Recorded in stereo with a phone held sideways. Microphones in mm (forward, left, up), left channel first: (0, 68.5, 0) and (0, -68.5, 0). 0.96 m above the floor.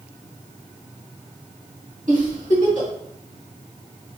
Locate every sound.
2.1 s a giggle: 70° right (ahead or behind), 2 m